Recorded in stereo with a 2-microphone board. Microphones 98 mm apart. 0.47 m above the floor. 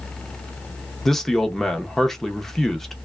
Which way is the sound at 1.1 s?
5° left (ahead or behind).